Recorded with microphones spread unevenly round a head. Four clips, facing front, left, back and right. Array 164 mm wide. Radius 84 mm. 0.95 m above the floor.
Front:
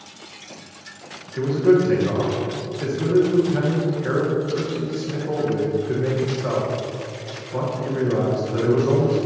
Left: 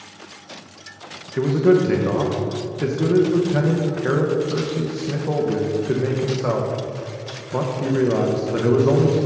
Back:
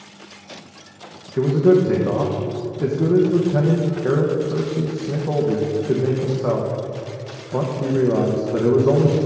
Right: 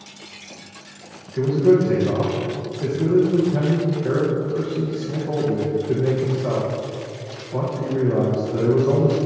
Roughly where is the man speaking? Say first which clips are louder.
Even, back 2 dB; behind left.